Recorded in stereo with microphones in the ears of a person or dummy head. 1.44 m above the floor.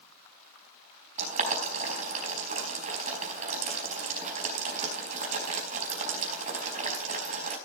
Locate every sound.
1.2 s boiling: 45° right (ahead or behind), 4.5 m